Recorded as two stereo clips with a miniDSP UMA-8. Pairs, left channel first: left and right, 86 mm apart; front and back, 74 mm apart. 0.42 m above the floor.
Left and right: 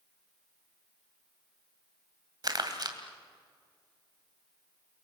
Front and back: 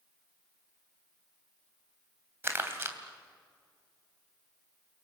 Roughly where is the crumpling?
Behind right.